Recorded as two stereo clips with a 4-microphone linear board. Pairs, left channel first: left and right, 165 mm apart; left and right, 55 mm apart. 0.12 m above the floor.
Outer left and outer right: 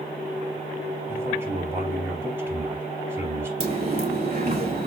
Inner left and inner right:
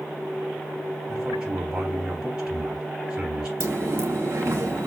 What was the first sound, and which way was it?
A man speaking, 15° right (ahead or behind).